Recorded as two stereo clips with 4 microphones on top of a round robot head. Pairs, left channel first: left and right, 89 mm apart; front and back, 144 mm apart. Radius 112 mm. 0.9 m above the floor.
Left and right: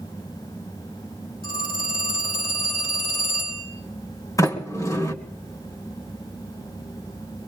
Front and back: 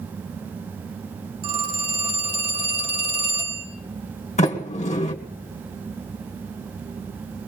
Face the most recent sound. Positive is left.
turn(degrees=40)